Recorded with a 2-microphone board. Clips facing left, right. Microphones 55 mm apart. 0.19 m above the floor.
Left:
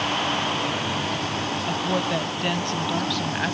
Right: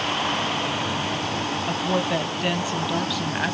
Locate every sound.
1.7 s a woman speaking: 5° right (ahead or behind), 1.0 m